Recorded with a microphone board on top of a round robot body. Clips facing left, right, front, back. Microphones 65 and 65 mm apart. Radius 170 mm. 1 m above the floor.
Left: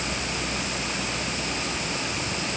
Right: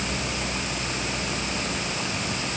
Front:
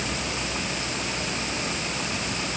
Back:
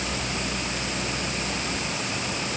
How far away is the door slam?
I don't hear a door slam.